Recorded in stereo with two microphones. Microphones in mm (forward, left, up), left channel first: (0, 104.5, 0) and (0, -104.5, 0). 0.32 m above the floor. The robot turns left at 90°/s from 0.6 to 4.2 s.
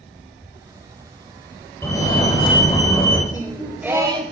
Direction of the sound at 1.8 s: 10° left (ahead or behind).